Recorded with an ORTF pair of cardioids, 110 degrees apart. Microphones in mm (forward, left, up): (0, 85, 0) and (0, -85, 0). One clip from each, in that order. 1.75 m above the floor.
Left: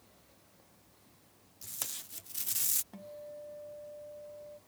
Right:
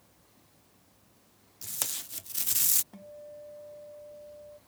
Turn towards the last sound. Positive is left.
turn(degrees=5)